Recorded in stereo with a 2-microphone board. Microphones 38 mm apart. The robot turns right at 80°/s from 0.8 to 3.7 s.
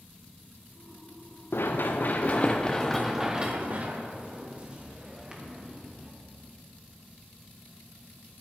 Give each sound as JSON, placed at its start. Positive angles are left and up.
{"t": 1.5, "sound": "running footsteps", "side_deg": 75, "distance_m": 1.3}